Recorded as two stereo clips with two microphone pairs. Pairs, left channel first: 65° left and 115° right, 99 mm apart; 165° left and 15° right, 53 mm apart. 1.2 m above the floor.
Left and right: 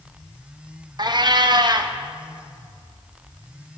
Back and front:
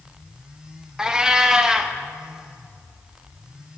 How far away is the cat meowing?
About 0.6 m.